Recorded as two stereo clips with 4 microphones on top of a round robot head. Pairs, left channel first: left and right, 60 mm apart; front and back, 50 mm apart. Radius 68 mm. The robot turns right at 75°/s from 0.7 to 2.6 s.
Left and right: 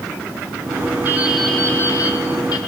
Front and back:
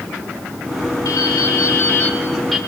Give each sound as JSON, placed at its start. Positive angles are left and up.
{"t": 1.1, "sound": "dripping", "azimuth_deg": -25, "distance_m": 5.5}